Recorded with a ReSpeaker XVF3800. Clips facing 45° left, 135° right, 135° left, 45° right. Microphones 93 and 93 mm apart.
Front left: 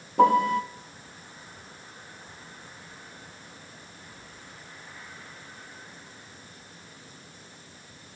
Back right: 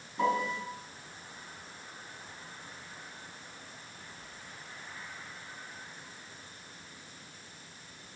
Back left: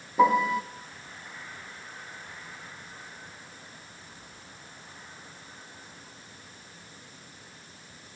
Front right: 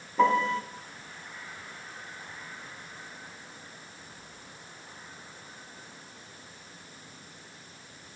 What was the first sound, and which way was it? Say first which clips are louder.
A piano: front left 10 dB, back left 2 dB; 55° left.